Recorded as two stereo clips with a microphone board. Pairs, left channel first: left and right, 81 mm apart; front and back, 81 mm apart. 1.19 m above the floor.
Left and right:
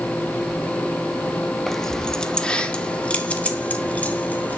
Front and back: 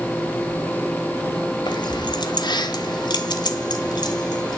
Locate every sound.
1.7 s keys jangling: 5° left, 1.2 m; by 4.6 s 20° left, 2.5 m